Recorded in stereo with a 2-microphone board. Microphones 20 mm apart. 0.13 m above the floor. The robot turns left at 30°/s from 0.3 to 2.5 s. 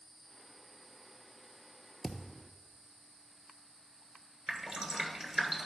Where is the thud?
5° left (ahead or behind), 0.8 m; by 2.5 s 10° right (ahead or behind), 0.8 m.